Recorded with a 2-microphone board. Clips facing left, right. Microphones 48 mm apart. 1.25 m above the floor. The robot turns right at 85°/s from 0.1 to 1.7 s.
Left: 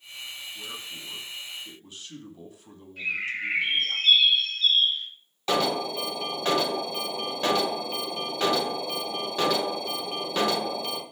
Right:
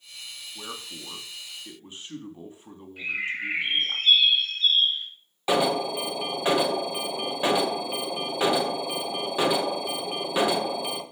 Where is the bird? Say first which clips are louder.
Even; 5° right (ahead or behind), 3.5 m.